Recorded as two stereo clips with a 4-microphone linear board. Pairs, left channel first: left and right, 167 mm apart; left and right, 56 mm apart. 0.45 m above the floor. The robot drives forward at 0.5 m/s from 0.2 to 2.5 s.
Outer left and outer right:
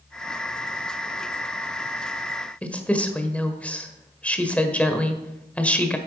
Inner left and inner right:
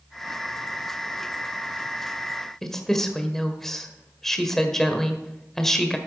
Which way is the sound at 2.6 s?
5° left (ahead or behind).